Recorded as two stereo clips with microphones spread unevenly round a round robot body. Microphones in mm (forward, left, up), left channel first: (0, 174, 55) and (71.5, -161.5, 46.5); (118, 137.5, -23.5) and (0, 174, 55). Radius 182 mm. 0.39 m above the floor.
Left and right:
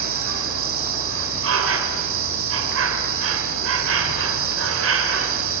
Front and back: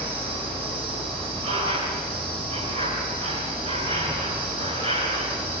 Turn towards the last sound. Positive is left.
turn(degrees=-115)